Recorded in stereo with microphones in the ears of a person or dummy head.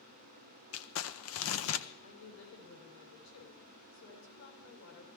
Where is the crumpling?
75° left (ahead or behind), 0.8 m.